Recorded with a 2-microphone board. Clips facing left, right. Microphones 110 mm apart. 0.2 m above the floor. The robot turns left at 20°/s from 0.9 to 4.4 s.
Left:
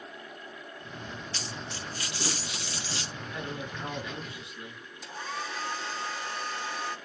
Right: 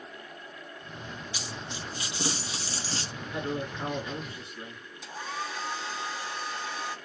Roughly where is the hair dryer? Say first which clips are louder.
Right 1 dB; centre.